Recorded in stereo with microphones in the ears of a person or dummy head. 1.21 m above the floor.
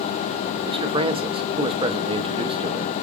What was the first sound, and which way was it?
A man speaking, 25° right (ahead or behind).